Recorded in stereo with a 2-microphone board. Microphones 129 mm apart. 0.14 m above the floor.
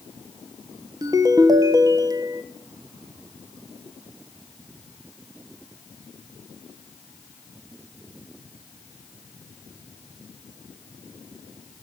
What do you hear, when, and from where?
1.0 s a ringtone: 30° right (ahead or behind), 1.0 m